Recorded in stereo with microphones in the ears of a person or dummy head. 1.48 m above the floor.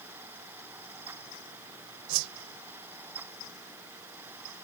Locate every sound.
2.1 s a whoosh: 75° right (ahead or behind)